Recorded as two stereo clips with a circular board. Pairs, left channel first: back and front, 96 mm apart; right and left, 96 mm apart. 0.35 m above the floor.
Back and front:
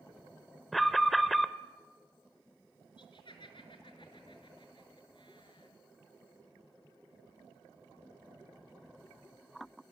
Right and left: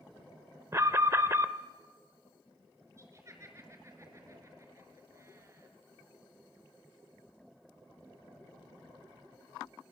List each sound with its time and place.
0.7 s an alarm: 90° left, 0.7 m
3.0 s laughter: 150° left, 5 m